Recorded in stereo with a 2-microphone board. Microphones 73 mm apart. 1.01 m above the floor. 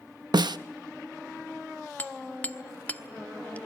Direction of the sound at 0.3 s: 70° right (ahead or behind).